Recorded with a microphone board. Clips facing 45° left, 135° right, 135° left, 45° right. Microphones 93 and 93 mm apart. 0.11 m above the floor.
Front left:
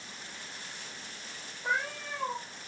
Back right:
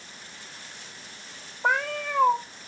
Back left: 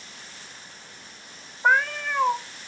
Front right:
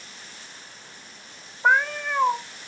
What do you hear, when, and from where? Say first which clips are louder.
1.6 s a cat meowing: back right 7 dB, front right 1 dB; 125° right, 1.0 m